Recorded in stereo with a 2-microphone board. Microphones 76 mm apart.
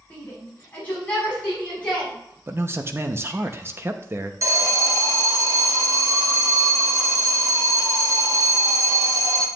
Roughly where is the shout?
Left.